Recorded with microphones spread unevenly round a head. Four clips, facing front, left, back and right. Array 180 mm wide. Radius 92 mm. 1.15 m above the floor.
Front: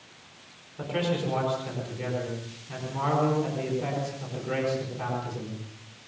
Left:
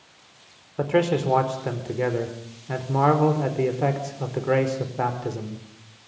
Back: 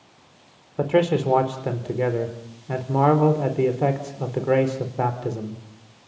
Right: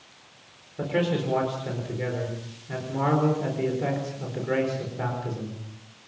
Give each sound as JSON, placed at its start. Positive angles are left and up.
{"t": 0.8, "sound": "a man speaking", "azimuth_deg": 155, "distance_m": 4.5}